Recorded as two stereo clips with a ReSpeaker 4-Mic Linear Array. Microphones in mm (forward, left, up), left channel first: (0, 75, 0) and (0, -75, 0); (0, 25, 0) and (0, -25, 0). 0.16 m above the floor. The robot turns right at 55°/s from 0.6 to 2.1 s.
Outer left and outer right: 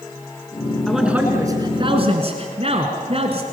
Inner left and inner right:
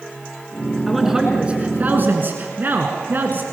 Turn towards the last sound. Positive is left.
turn(degrees=-115)